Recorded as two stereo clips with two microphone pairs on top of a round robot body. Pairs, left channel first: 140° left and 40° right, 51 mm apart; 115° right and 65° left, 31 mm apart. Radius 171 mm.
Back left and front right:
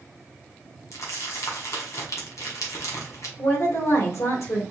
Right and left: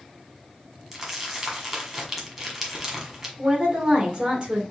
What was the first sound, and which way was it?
Crumpling, 140° left.